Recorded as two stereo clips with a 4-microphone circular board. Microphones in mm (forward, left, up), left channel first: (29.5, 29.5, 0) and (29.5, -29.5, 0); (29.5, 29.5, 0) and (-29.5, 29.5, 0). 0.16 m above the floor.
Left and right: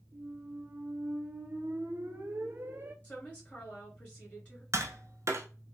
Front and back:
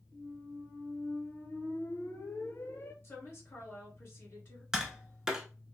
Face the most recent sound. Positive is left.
turn(degrees=-105)